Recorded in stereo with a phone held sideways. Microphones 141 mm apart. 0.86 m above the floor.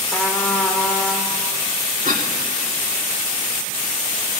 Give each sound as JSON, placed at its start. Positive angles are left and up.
{"t": 0.1, "sound": "a trumpet", "side_deg": 10, "distance_m": 2.0}
{"t": 2.0, "sound": "a cough", "side_deg": -70, "distance_m": 2.5}